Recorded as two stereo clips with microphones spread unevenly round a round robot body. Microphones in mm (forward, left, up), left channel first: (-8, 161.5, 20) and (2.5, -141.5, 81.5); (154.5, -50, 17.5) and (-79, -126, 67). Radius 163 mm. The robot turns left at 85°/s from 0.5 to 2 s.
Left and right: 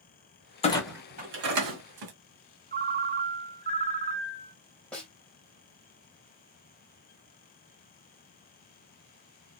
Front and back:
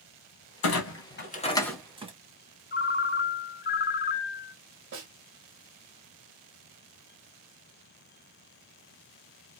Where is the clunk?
30° left, 1.9 m; by 2.1 s 90° right, 1.9 m.